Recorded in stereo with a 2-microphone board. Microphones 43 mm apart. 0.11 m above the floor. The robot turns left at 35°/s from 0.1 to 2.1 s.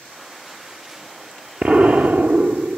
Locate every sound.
1.6 s an explosion: 40° right (ahead or behind), 0.9 m; by 2.8 s 55° right (ahead or behind), 0.9 m